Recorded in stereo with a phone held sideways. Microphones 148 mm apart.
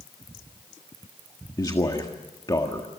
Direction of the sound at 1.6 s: 25° left (ahead or behind).